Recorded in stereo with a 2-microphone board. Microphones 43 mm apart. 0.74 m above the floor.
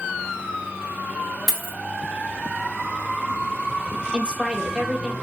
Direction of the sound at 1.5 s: 10° left (ahead or behind).